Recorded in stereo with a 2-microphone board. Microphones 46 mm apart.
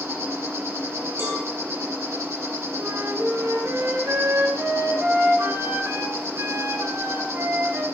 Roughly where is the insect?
Right.